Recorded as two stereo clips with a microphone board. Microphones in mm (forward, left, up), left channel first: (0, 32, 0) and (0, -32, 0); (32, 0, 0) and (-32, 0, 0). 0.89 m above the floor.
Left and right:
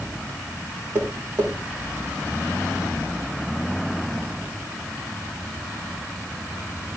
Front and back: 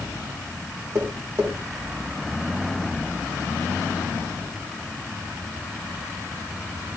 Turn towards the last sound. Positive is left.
turn(degrees=-140)